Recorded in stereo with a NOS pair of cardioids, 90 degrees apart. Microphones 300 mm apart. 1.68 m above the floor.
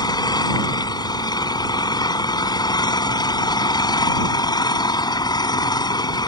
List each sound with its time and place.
0.0 s an engine running: 15° left